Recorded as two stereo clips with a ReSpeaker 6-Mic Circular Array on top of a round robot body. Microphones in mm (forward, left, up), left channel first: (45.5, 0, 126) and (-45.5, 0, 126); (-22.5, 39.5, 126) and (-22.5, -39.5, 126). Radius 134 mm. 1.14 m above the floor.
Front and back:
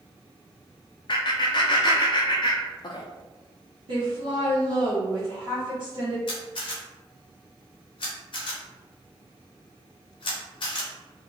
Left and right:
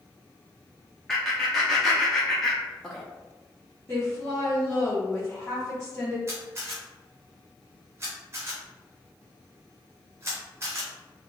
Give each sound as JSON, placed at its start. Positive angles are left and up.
{"t": 1.1, "sound": "laughter", "azimuth_deg": 5, "distance_m": 0.5}
{"t": 3.9, "sound": "a woman speaking", "azimuth_deg": 155, "distance_m": 0.8}
{"t": 6.3, "sound": "a camera shutter", "azimuth_deg": -30, "distance_m": 0.6}